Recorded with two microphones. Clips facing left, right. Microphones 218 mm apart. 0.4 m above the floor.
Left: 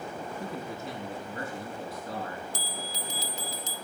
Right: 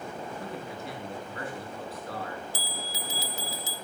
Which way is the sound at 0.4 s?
25° left (ahead or behind).